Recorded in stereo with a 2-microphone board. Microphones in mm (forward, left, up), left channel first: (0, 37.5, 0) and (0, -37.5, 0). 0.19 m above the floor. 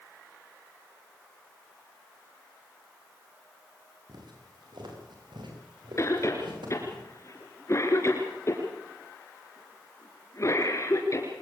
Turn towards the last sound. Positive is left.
turn(degrees=40)  # may be behind; listen again after turning